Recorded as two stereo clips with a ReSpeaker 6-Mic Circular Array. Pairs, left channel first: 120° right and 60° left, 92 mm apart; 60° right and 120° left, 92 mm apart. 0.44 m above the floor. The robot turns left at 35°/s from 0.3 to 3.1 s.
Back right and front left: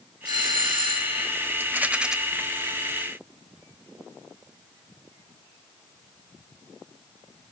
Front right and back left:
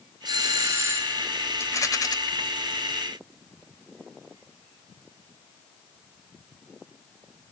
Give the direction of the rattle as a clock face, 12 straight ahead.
12 o'clock.